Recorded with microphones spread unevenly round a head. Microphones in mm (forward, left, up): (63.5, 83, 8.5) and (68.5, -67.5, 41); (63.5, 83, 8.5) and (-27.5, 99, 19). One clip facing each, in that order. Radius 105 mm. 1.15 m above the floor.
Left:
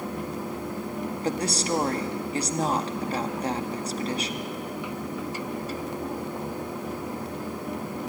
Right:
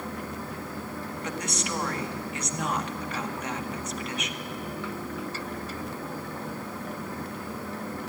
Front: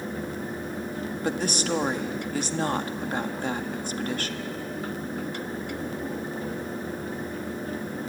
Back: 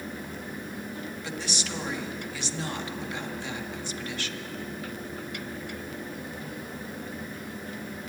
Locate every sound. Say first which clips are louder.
1.2 s a woman speaking: left 6 dB, front 11 dB; 35° left, 1.9 m